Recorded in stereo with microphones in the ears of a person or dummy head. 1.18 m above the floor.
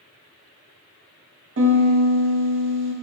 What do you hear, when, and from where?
1.6 s a piano: 60° right (ahead or behind), 0.7 m